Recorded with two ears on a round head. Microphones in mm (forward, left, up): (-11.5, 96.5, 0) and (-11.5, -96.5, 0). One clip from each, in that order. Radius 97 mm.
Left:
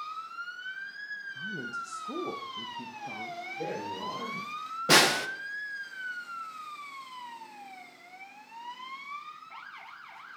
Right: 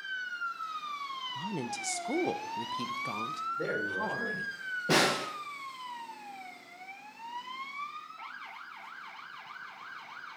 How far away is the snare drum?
About 1.0 m.